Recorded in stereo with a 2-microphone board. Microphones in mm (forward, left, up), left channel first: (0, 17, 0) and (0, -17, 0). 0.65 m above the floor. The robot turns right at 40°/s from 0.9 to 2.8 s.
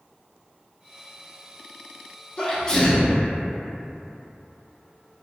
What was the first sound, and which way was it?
A sneeze, 25° left (ahead or behind).